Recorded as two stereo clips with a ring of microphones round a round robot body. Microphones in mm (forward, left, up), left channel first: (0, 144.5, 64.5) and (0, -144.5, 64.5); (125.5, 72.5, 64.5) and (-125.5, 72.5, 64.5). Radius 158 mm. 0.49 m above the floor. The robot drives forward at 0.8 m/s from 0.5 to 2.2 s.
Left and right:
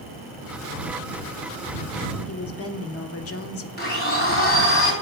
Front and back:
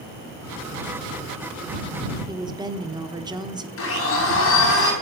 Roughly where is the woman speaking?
Left.